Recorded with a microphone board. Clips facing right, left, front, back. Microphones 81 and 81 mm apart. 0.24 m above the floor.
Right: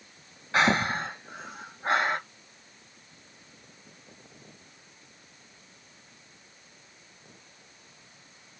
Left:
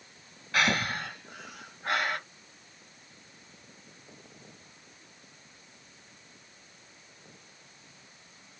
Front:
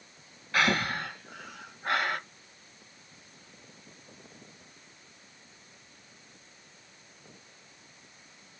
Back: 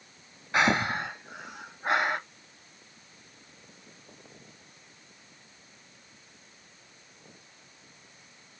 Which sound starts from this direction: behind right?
Breathing, at 0.5 s.